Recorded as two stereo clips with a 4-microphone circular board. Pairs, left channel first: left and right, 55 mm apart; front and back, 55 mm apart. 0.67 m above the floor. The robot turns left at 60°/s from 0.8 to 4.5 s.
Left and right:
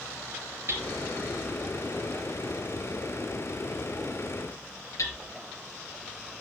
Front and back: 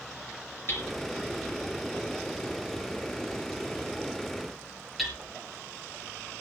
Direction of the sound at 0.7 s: 50° right.